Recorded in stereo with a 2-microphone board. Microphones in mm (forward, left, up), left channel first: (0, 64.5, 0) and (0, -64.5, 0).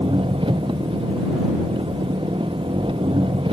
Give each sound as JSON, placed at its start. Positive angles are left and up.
{"t": 0.0, "sound": "an engine running", "side_deg": -40}